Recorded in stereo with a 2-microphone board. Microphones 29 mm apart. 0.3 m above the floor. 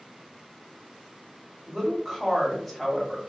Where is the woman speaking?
10° left (ahead or behind), 1.1 m.